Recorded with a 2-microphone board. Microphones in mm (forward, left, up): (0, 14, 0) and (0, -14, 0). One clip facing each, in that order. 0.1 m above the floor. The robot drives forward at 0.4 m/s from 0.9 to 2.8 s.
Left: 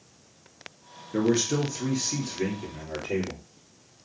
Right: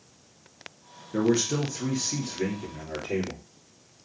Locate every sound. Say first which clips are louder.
1.1 s a man speaking: even; 10° left (ahead or behind), 1.9 m; by 3.4 s 5° left (ahead or behind), 2.5 m